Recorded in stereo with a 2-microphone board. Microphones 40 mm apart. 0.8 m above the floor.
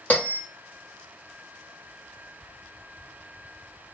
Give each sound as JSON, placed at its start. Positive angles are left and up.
{"t": 0.1, "sound": "a bell", "side_deg": 45, "distance_m": 1.1}